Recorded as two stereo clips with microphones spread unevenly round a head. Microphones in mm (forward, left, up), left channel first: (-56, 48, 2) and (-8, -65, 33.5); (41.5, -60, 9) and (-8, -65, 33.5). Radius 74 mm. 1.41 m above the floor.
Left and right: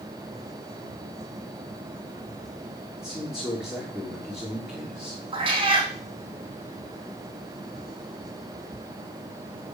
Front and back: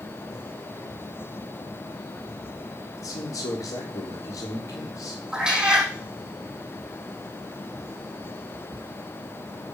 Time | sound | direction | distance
3.0 | a man speaking | 20° left | 3 m
5.3 | a cat meowing | 105° right | 5 m